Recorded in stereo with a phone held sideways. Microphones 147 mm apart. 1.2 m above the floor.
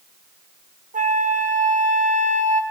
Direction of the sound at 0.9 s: 60° right (ahead or behind).